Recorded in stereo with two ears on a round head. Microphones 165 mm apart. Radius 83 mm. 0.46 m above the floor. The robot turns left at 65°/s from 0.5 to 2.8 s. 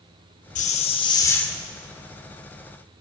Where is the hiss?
70° left, 0.6 m; by 1.6 s 5° left, 0.6 m.